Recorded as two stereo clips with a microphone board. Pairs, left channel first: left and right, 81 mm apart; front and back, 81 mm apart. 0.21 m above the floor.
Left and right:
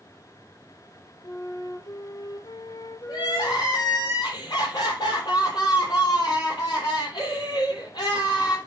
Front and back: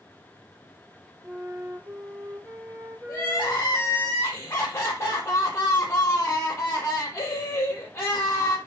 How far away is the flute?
About 0.8 m.